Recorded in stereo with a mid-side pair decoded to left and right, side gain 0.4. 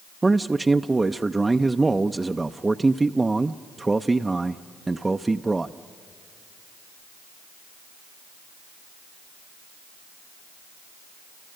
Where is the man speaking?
20° right, 0.5 m.